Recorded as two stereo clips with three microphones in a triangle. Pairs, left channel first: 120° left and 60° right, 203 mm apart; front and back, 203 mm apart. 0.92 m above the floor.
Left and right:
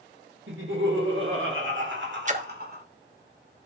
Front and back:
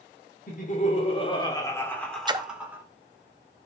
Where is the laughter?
45° right, 2.5 m; by 2.8 s 100° right, 2.5 m.